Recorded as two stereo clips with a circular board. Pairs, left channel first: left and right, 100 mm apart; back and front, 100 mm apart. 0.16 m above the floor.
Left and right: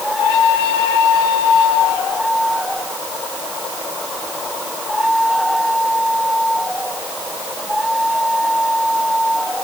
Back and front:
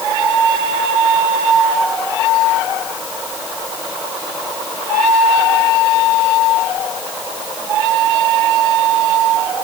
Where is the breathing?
No breathing in this recording.